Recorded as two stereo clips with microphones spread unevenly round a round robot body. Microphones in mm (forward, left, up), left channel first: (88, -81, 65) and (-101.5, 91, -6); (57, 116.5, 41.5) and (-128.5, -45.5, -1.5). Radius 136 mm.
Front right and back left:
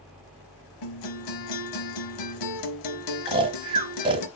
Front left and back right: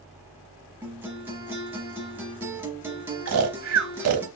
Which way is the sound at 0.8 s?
55° right.